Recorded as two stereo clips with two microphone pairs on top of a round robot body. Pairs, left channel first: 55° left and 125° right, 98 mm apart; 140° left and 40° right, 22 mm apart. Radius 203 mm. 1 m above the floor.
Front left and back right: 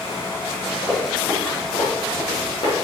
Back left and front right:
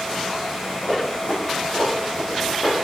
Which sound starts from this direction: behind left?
Running footsteps, at 0.8 s.